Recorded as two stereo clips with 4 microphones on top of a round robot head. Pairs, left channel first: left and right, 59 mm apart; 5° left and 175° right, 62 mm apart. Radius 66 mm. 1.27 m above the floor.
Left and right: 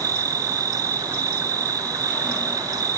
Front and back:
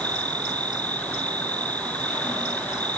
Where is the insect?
70° right.